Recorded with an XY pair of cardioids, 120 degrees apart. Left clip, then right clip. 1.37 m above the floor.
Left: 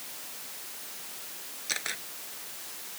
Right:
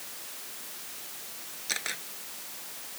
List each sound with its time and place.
1.7 s a camera shutter: straight ahead